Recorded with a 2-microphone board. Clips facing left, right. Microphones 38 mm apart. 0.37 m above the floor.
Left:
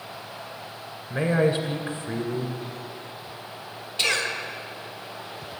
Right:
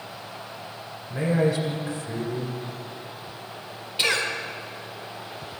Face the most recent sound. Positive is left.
turn(degrees=-20)  # may be behind; listen again after turning